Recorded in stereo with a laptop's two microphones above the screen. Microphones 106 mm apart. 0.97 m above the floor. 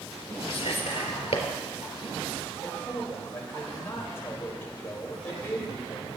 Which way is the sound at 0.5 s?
70° left (ahead or behind).